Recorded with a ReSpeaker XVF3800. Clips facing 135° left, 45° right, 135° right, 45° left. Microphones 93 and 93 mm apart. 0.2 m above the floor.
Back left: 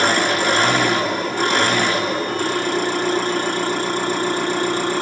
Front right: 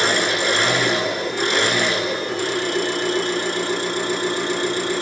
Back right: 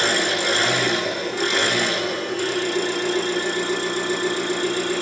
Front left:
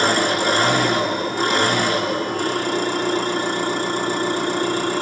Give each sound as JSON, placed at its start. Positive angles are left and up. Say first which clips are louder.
{"t": 0.0, "sound": "an engine running", "louder": "back left 2 dB, front left 4 dB", "azimuth_deg": 80, "distance_m": 5.0}